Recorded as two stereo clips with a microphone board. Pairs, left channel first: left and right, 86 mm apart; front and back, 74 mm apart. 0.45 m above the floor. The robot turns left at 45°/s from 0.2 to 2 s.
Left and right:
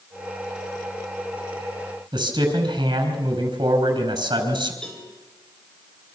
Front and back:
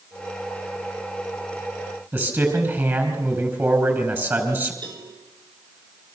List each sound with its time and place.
2.1 s a man speaking: 125° right, 4.5 m
4.8 s a cowbell: 170° left, 6 m